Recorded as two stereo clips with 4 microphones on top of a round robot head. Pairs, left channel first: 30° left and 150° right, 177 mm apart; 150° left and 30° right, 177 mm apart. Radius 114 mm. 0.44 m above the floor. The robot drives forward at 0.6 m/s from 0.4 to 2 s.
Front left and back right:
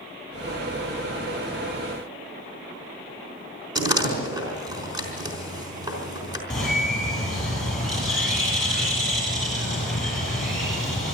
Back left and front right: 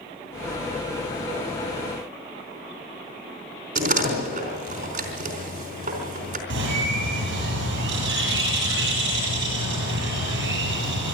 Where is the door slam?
80° right, 4 m.